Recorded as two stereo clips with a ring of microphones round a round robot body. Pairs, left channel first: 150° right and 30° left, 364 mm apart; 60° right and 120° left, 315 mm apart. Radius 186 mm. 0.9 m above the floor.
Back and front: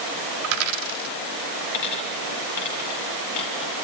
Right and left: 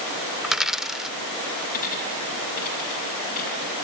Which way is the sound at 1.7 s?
130° right.